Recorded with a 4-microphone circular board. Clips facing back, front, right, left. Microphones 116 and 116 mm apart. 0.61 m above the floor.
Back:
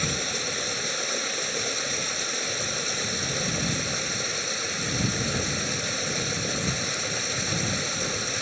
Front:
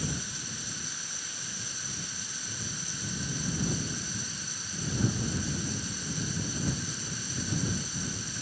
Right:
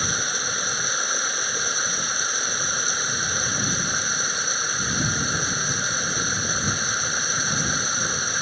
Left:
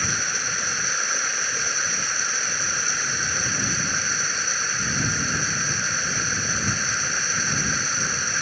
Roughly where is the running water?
Behind.